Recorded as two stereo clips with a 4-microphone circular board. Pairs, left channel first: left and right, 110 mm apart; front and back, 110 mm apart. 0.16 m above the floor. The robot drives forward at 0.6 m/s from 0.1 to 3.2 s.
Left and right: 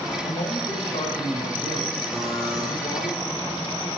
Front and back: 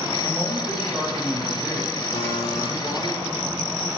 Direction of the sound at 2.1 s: Straight ahead.